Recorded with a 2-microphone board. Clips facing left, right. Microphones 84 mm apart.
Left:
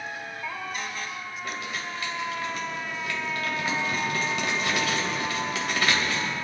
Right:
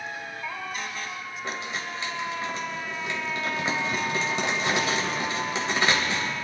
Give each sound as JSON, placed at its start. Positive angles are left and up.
{"t": 1.4, "sound": "crumpling", "side_deg": -25, "distance_m": 3.0}